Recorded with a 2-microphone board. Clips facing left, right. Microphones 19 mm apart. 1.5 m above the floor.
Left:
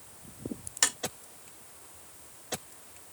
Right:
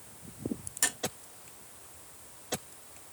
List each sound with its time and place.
0.8 s tapping: 30° left (ahead or behind), 1.1 m